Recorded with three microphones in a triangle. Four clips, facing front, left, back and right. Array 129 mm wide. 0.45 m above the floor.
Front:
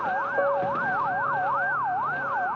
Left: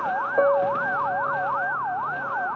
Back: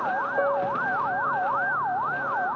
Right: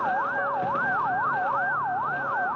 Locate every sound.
0.4 s a piano: 90° left